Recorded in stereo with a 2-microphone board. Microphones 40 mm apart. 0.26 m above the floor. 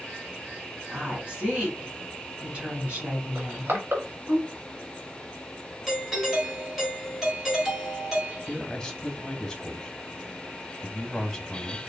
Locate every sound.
0.9 s a woman speaking: 30° right (ahead or behind), 2.5 m
3.4 s crushing: 65° right (ahead or behind), 1.6 m
5.9 s a doorbell: 5° right (ahead or behind), 2.5 m
8.5 s a man speaking: 10° left (ahead or behind), 1.3 m